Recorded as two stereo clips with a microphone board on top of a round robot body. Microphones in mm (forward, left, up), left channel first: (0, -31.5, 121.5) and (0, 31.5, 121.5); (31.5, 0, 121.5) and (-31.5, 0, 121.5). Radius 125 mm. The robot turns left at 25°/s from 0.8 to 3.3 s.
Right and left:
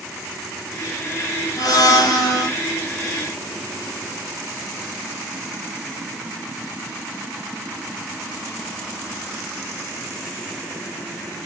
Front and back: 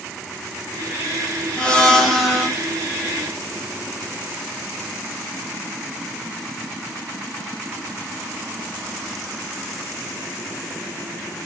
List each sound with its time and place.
1.6 s a blender: 75° right, 0.9 m; by 2.5 s 100° right, 0.9 m